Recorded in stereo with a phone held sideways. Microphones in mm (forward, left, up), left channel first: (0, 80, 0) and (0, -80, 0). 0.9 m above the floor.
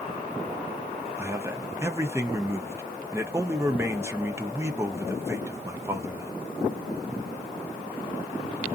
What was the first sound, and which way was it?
A man speaking, 15° right (ahead or behind).